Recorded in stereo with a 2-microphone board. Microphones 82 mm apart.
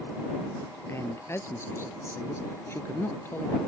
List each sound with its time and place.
0.9 s a man speaking: 30° left (ahead or behind); by 3.6 s 25° left (ahead or behind)